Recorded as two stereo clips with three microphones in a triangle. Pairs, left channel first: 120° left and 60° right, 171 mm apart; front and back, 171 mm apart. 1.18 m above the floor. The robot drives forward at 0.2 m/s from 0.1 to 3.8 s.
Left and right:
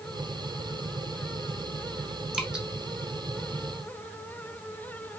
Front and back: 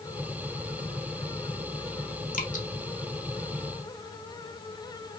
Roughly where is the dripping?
Ahead left.